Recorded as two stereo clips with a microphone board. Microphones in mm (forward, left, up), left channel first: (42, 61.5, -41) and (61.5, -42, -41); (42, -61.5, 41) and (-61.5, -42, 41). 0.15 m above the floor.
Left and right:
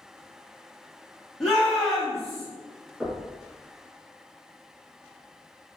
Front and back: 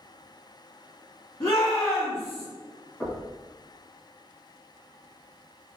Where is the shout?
20° left, 1.6 m.